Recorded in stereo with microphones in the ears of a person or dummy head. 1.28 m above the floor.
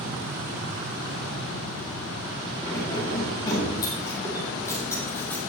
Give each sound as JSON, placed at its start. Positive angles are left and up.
{"t": 2.6, "sound": "keys jangling", "side_deg": 25, "distance_m": 4.5}